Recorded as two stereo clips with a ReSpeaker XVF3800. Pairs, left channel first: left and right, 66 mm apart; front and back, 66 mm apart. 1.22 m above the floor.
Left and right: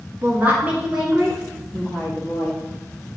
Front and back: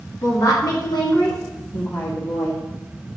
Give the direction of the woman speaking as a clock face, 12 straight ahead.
1 o'clock.